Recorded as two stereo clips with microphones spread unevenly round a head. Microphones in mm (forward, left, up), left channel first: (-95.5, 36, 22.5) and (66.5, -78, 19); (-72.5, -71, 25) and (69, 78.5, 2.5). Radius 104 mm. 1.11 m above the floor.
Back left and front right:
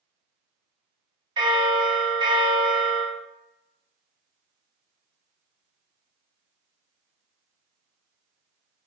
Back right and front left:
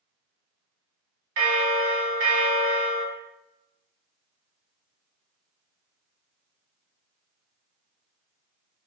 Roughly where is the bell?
Ahead left.